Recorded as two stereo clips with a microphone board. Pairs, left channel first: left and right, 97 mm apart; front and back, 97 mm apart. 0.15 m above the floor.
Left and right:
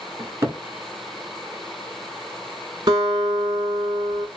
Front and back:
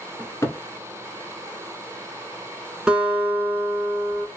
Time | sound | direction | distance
0.2 | a cupboard door | 45° right | 0.6 m
2.9 | a guitar | 100° right | 0.8 m